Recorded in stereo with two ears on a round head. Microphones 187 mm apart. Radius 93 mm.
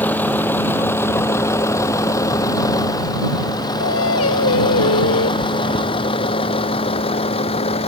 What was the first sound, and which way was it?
A vehicle, 10° left (ahead or behind).